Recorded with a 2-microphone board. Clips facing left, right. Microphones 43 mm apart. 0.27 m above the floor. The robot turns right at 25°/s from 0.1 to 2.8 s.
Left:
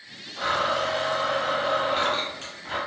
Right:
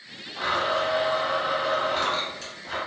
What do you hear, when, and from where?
0.4 s a blender: 15° right, 1.7 m; by 2.8 s 45° left, 1.7 m